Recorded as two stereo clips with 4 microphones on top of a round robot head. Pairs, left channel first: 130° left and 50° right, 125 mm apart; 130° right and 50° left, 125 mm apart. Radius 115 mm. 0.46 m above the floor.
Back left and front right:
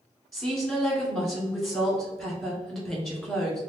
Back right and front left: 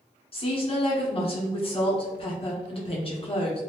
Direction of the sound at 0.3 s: 140° right.